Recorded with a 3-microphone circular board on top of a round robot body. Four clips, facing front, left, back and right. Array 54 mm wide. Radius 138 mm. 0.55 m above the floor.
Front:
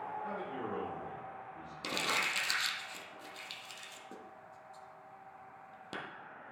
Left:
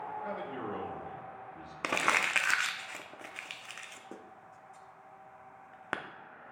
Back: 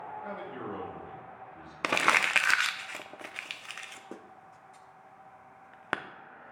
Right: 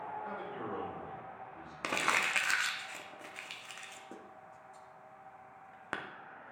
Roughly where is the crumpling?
Behind.